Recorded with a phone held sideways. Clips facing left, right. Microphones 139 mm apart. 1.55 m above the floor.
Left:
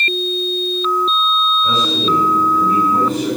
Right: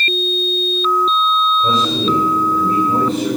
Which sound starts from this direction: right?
A man speaking, at 1.6 s.